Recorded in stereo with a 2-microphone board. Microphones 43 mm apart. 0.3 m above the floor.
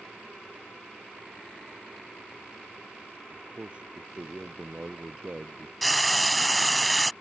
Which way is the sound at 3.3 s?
30° right (ahead or behind).